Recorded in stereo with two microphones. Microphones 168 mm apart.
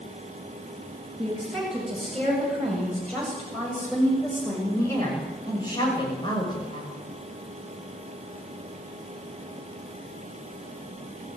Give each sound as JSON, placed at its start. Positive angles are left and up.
{"t": 1.2, "sound": "a woman speaking", "side_deg": -5, "distance_m": 8.0}